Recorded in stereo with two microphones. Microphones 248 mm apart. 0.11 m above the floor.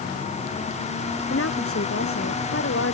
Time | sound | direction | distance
1.3 | a woman speaking | 55° left (ahead or behind) | ?